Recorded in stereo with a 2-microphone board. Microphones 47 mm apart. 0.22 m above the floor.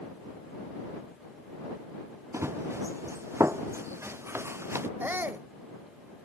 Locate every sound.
2.3 s running footsteps: 70° right (ahead or behind); by 4.9 s 65° right (ahead or behind)
5.0 s a shout: 45° right (ahead or behind)